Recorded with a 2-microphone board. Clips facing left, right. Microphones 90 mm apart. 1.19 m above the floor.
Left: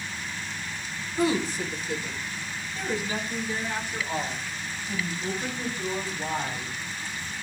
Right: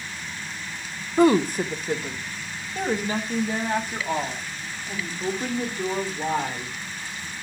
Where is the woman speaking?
50° right (ahead or behind), 0.8 m.